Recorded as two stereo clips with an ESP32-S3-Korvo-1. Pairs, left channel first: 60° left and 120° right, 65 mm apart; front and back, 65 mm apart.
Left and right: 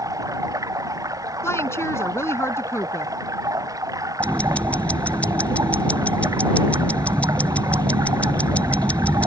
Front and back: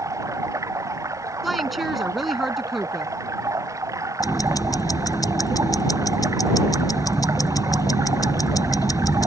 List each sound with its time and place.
0.0 s running water: 145° right
1.4 s a woman speaking: 90° left
4.2 s ticking: 10° right